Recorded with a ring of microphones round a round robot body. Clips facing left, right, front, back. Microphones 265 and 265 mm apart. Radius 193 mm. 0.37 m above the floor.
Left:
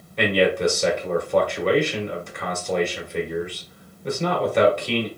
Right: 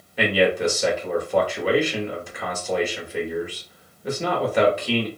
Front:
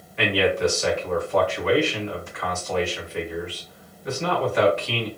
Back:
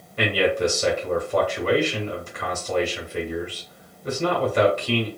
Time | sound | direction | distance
0.2 | a man speaking | 175° right | 1.6 m